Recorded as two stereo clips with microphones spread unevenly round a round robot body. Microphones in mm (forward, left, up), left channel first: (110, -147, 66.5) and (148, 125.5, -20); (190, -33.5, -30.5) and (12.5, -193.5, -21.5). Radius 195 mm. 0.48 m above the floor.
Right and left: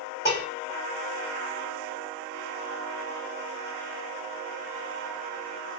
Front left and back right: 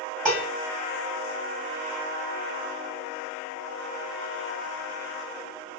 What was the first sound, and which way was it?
Dishes clattering, 150° left.